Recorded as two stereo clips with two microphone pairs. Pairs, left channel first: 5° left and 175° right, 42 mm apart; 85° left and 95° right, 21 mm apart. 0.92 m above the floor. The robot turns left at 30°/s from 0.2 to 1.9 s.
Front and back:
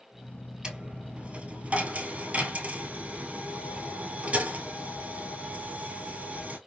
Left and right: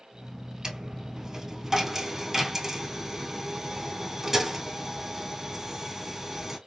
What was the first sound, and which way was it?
A dropped coin, 125° right.